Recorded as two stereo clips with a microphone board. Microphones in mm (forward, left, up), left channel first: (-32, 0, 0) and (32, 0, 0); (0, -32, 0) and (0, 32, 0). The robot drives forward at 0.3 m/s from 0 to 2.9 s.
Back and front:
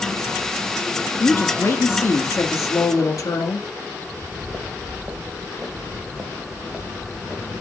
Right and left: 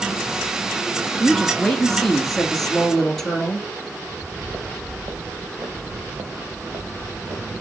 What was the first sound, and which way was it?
A woman speaking, 170° right.